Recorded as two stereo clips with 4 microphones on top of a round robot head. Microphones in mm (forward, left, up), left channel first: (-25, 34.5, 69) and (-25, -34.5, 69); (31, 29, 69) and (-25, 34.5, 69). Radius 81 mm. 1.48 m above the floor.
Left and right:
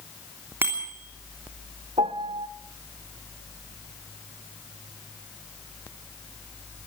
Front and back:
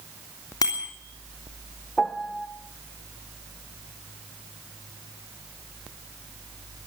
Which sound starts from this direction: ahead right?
A bicycle bell, at 0.6 s.